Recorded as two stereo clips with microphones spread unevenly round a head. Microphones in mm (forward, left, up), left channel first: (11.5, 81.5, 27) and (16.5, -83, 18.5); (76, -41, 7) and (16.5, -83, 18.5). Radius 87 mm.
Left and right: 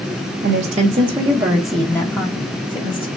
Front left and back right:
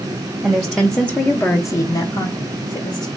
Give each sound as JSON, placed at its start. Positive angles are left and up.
{"t": 0.4, "sound": "a woman speaking", "azimuth_deg": -70, "distance_m": 0.7}